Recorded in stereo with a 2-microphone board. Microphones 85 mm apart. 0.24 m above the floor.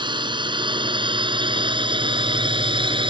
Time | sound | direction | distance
0.0 | a drone | 60° right (ahead or behind) | ?